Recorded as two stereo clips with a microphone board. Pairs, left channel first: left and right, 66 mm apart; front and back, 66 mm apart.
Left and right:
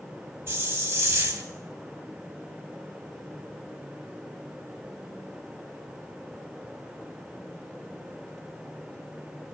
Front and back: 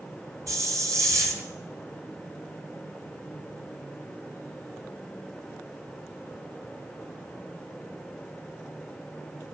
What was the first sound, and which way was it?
A hiss, 145° right.